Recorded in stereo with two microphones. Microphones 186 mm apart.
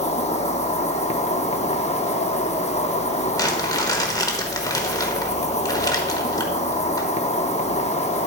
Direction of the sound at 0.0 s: 35° left (ahead or behind).